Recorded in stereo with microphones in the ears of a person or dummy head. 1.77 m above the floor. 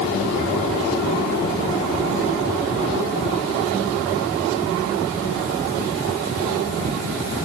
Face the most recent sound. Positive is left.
No sound to turn to.